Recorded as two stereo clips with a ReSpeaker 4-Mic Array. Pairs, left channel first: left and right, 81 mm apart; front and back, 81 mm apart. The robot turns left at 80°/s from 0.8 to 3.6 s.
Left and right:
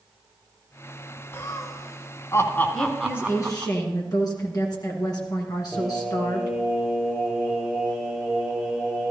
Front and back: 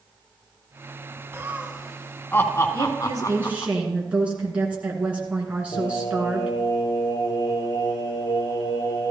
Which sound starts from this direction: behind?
A woman speaking, at 2.7 s.